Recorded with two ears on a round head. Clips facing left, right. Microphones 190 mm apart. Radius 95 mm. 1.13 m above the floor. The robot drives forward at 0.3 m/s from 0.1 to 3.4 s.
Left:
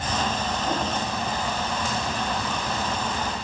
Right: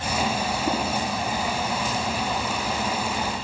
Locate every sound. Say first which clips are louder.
0.7 s tapping: right 2 dB; 60° right (ahead or behind), 9 m